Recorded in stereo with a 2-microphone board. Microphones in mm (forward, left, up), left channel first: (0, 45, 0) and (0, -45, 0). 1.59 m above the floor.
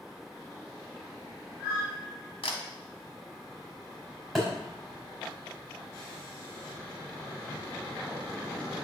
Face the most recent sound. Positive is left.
turn(degrees=5)  # may be behind; listen again after turning